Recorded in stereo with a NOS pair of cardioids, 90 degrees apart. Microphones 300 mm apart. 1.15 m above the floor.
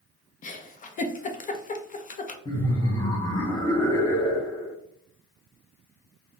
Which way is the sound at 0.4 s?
30° left.